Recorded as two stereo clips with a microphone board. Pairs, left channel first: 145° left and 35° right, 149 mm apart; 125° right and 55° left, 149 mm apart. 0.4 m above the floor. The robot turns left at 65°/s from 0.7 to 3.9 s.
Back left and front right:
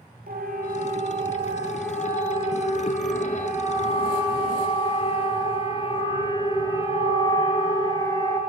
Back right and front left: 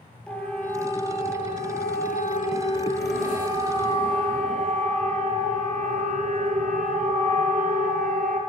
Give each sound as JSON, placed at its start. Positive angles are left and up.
{"t": 0.3, "sound": "a siren", "azimuth_deg": -40, "distance_m": 8.0}